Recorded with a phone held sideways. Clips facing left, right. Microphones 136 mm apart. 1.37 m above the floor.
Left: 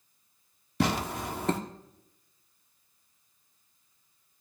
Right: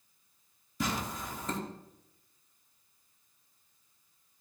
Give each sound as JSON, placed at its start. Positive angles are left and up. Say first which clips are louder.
{"t": 0.8, "sound": "tearing paper", "louder": "left 6 dB", "side_deg": 70, "distance_m": 1.0}